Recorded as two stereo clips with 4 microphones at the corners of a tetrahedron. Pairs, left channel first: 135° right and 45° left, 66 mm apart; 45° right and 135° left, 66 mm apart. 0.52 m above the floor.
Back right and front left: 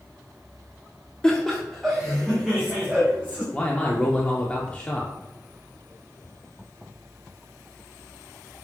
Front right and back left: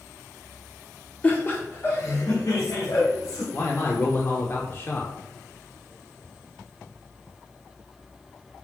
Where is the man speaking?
70° right, 0.9 m.